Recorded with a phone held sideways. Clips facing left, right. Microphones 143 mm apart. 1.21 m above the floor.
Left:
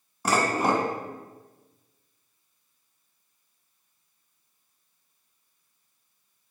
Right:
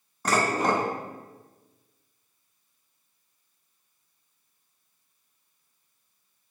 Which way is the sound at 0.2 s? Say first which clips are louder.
Left 1 dB; 10° left (ahead or behind).